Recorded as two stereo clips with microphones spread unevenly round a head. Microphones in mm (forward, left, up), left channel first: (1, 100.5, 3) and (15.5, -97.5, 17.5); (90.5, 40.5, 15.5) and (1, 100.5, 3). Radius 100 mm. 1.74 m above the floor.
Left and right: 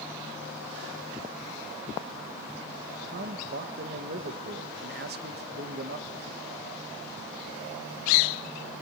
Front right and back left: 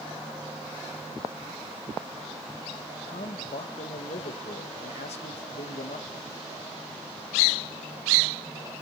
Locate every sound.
3.1 s a man speaking: 50° right, 1.7 m